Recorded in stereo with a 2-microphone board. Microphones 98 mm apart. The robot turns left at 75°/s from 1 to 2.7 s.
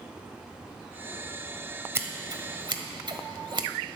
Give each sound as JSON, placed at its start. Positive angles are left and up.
{"t": 1.9, "sound": "scissors", "side_deg": -25, "distance_m": 1.1}